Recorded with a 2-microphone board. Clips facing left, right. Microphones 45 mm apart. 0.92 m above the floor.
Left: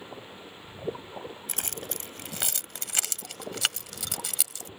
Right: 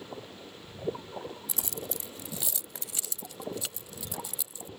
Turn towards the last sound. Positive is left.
turn(degrees=85)